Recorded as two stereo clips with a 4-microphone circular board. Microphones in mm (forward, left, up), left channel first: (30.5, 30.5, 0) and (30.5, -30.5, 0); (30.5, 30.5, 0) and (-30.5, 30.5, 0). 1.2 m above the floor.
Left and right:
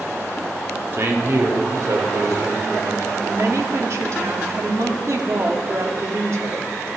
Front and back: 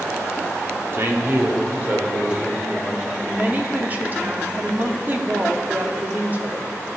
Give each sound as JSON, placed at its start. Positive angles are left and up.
{"t": 0.9, "sound": "a man speaking", "azimuth_deg": -135, "distance_m": 2.5}
{"t": 3.3, "sound": "a woman speaking", "azimuth_deg": -120, "distance_m": 2.0}